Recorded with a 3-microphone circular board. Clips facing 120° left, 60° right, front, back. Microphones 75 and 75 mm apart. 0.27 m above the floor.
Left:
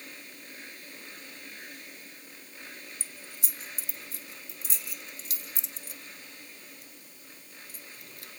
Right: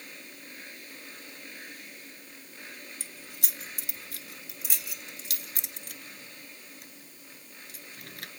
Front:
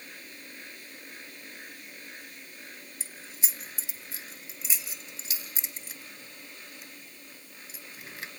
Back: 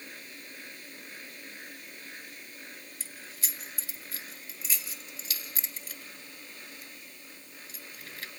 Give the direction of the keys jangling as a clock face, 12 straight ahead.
2 o'clock.